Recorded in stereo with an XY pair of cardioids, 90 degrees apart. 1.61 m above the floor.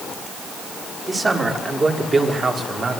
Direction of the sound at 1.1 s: 25° right.